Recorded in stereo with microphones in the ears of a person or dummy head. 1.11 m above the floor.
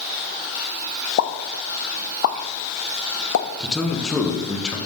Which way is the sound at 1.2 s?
75° left (ahead or behind).